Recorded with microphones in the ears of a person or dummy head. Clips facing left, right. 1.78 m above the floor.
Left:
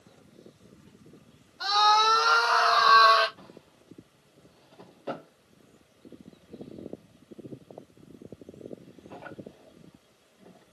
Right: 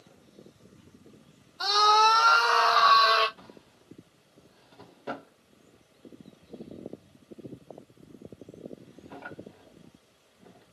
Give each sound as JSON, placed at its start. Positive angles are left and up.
{"t": 1.6, "sound": "a scream", "side_deg": -50, "distance_m": 0.9}
{"t": 3.4, "sound": "a drawer", "side_deg": 0, "distance_m": 1.6}